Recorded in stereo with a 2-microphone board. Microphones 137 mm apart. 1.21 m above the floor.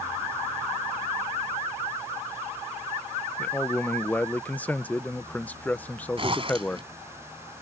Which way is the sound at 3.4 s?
10° left (ahead or behind).